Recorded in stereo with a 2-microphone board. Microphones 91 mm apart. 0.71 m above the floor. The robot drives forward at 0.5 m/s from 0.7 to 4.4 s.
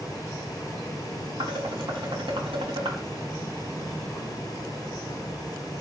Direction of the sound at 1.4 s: 60° right (ahead or behind).